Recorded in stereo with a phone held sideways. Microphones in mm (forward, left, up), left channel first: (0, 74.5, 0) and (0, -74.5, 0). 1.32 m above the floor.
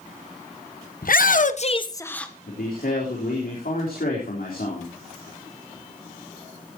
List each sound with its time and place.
1.0 s a shout: 70° left (ahead or behind), 1.3 m; by 2.3 s 5° left (ahead or behind), 1.3 m
2.5 s a man speaking: 85° left, 4 m